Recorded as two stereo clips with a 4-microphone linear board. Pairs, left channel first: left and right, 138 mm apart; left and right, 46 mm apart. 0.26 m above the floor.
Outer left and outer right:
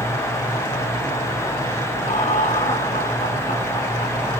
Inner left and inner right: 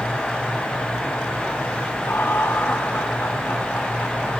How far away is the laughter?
About 2.5 m.